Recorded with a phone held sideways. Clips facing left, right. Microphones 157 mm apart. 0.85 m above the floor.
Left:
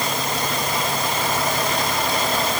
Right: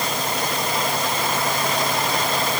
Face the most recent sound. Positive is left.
No sound to turn to.